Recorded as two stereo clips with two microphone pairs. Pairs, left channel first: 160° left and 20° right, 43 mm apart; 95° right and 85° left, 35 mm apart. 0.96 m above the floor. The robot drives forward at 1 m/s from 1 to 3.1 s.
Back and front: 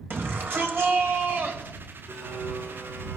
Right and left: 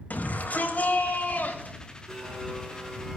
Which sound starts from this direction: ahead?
A blender, at 2.1 s.